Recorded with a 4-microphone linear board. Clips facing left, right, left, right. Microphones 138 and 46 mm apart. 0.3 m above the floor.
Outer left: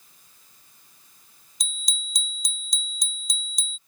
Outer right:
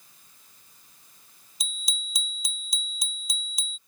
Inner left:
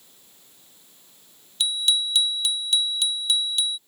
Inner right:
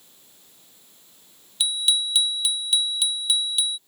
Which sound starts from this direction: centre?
A bicycle bell, at 1.6 s.